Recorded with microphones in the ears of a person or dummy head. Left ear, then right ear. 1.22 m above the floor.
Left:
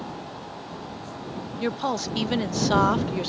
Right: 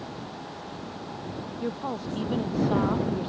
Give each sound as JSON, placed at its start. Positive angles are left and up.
{"t": 1.6, "sound": "a woman speaking", "side_deg": 70}